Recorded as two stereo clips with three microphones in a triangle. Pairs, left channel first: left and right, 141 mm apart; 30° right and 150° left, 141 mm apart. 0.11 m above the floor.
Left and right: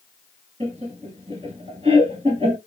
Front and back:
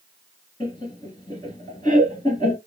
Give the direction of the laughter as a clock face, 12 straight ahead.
2 o'clock.